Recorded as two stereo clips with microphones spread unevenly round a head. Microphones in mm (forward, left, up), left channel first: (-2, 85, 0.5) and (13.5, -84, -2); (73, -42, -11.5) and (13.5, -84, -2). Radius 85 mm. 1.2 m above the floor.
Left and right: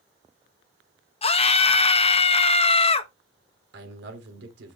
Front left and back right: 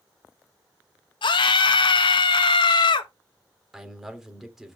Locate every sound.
1.2 s a scream: 40° left, 1.2 m
3.7 s a man speaking: 60° right, 3 m